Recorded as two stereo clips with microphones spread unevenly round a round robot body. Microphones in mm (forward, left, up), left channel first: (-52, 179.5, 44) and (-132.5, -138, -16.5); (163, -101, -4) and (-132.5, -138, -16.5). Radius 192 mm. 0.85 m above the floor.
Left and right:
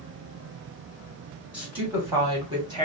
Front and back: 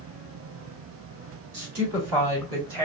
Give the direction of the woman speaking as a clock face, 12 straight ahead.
6 o'clock.